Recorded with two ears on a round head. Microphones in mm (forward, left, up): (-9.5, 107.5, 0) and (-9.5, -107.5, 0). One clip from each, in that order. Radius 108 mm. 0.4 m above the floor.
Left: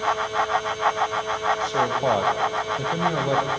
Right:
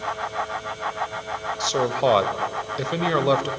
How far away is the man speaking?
About 1.5 m.